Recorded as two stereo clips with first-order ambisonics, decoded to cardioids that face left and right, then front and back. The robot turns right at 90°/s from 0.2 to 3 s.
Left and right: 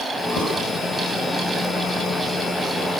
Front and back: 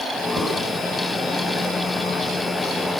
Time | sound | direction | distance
0.4 | writing | 115° left | 7.5 m